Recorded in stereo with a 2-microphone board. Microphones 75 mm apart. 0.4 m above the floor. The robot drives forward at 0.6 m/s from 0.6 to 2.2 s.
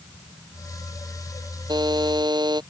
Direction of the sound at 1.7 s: 80° right.